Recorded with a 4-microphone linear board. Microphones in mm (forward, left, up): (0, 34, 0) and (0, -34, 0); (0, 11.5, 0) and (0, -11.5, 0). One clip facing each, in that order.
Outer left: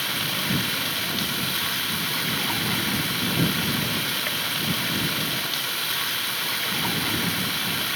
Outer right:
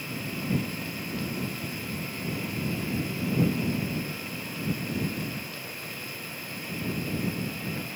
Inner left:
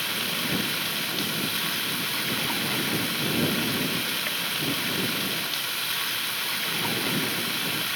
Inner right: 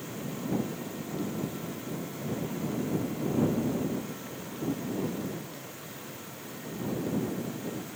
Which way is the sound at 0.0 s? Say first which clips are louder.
Outer left 6 dB, inner left 10 dB; 85° left.